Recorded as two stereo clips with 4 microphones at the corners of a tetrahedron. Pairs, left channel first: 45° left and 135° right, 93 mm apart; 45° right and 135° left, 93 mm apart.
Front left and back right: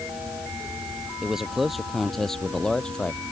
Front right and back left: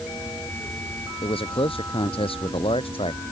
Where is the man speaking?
50° right; by 3.2 s 30° right.